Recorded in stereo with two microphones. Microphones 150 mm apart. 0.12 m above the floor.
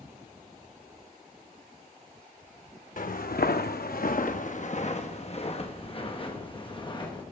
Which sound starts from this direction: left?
Footsteps, at 3.0 s.